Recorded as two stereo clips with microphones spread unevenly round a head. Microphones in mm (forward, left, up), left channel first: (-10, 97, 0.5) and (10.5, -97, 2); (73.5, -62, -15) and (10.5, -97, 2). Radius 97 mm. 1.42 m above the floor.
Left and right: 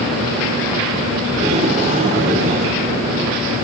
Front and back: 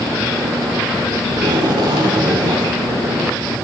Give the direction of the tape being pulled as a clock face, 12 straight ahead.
5 o'clock.